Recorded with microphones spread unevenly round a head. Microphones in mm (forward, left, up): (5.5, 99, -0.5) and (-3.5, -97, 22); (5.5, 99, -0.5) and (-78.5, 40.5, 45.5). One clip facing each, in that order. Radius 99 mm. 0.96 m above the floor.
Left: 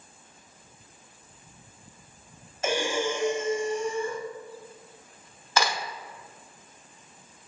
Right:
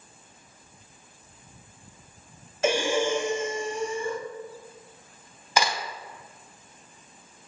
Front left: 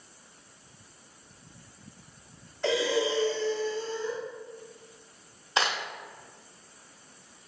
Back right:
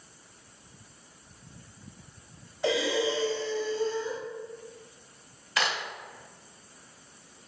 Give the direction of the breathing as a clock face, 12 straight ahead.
2 o'clock.